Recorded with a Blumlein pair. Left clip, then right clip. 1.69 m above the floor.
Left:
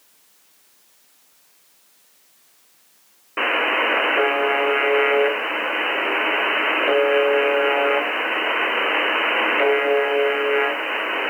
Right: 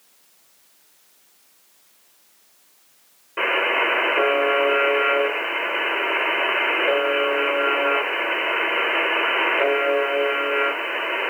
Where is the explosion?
I don't hear an explosion.